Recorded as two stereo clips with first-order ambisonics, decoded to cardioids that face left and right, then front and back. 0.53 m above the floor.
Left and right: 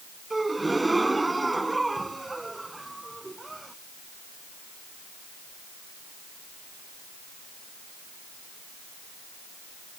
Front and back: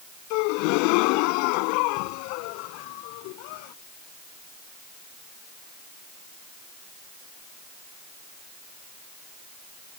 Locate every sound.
0.3 s a gasp: 5° right